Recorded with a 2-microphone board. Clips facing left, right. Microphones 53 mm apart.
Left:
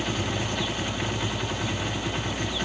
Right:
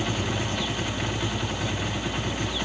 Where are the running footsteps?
No running footsteps in this recording.